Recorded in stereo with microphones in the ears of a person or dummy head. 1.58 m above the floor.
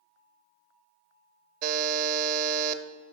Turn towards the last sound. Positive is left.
turn(degrees=-45)  # may be behind; listen again after turning